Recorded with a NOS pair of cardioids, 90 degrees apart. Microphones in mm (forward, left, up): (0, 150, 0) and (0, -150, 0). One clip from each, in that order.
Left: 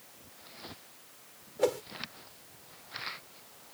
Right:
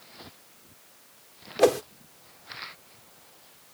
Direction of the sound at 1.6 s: 65° right.